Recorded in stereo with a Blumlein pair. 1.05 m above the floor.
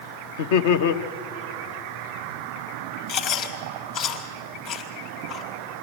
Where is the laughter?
50° left, 0.9 m.